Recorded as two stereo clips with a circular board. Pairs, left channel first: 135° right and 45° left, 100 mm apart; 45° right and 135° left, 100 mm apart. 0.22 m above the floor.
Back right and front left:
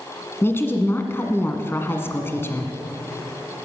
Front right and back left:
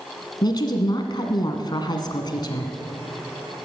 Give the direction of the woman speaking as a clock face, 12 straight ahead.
2 o'clock.